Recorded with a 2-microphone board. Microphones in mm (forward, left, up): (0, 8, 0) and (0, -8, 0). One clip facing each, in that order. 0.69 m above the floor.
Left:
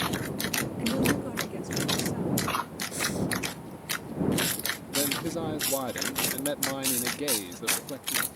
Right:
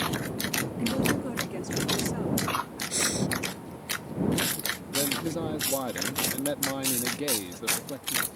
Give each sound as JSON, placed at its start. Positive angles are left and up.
{"t": 0.8, "sound": "a woman speaking", "side_deg": 5}
{"t": 2.9, "sound": "breathing", "side_deg": -60}
{"t": 4.9, "sound": "a man speaking", "side_deg": 10}